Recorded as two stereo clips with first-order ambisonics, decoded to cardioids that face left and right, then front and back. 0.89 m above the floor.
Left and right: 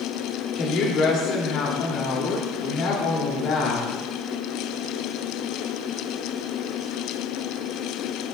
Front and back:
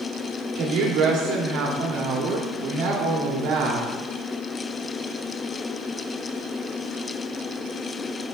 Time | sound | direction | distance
0.6 | a woman speaking | 140° left | 1.8 m